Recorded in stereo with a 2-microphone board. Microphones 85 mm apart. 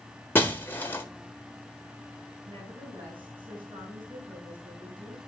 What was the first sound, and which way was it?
Breaking glass, 25° left (ahead or behind).